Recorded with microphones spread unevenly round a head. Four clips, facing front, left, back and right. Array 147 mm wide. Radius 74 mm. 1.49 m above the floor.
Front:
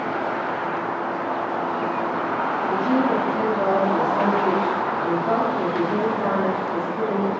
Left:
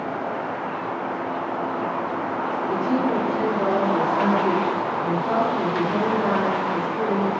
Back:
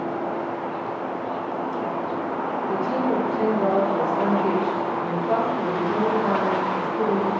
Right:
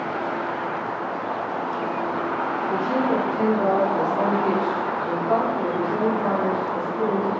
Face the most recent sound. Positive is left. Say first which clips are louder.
# even, front 3 dB
turn(degrees=15)